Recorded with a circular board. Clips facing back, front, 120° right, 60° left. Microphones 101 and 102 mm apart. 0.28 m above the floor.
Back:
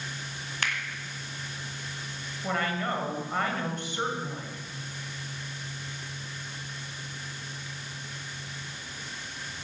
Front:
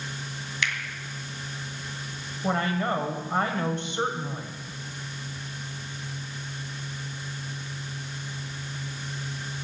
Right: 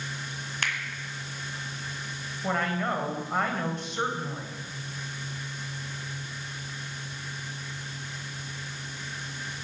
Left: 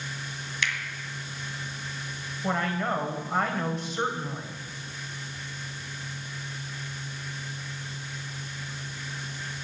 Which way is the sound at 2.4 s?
30° right.